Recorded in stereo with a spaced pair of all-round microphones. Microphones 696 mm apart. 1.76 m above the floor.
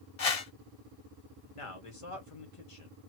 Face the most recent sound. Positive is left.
turn(degrees=45)  # may be behind; listen again after turning